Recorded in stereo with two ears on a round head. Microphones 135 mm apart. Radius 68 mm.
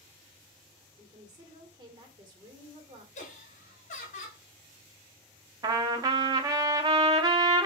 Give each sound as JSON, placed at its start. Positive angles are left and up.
{"t": 1.0, "sound": "a woman speaking", "side_deg": -30, "distance_m": 1.7}
{"t": 3.1, "sound": "laughter", "side_deg": 50, "distance_m": 2.5}
{"t": 5.6, "sound": "a trumpet", "side_deg": -25, "distance_m": 0.7}